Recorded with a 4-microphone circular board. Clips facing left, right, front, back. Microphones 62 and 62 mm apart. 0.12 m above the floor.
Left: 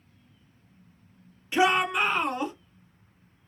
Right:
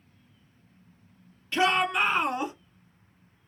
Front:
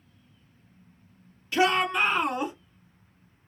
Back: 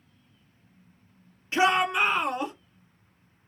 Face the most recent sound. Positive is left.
turn(degrees=-50)